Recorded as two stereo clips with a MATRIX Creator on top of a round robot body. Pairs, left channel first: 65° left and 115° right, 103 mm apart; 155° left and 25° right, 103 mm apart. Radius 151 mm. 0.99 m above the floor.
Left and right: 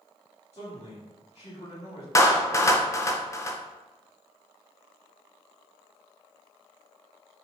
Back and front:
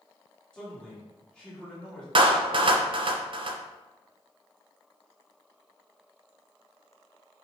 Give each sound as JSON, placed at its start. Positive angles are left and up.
{"t": 0.5, "sound": "a man speaking", "azimuth_deg": 75, "distance_m": 1.9}
{"t": 2.1, "sound": "a clap", "azimuth_deg": 10, "distance_m": 0.5}